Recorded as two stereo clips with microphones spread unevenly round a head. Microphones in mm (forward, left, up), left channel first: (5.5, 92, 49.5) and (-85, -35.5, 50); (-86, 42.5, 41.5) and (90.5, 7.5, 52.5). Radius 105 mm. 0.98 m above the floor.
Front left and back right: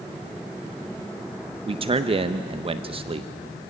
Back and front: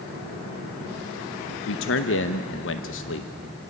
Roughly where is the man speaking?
Behind.